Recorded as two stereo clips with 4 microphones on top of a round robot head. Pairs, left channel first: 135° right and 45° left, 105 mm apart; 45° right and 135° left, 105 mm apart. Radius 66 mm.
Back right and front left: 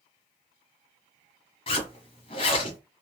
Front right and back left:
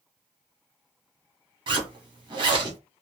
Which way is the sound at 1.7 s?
175° right.